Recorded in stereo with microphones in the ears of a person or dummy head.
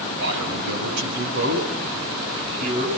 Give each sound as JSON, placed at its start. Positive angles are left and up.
{"t": 0.2, "sound": "a man speaking", "side_deg": -70, "distance_m": 7.5}